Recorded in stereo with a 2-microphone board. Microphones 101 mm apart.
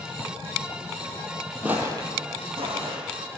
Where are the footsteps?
15° right (ahead or behind), 1.0 m; by 3.4 s 75° right (ahead or behind), 2.5 m.